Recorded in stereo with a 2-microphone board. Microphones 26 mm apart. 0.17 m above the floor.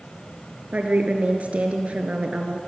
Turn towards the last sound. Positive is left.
turn(degrees=-60)  # may be behind; listen again after turning